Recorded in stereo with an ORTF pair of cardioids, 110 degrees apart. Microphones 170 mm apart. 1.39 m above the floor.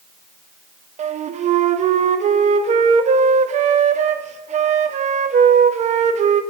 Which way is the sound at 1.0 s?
40° right.